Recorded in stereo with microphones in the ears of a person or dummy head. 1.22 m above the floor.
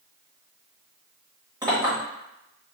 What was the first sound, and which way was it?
A clink, 20° right (ahead or behind).